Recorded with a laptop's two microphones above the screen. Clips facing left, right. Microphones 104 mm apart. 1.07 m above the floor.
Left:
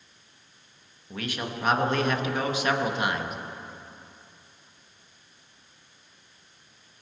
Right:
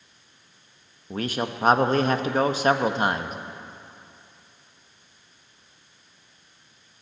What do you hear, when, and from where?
1.1 s a man speaking: 35° right (ahead or behind), 1.0 m